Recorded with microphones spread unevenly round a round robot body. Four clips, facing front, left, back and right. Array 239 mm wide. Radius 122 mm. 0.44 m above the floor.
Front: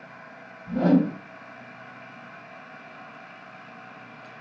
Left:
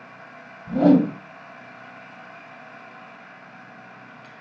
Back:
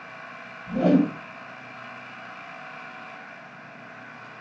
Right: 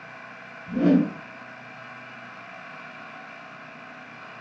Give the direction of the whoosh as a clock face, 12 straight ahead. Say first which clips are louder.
Left 4 dB, back 1 dB; 9 o'clock.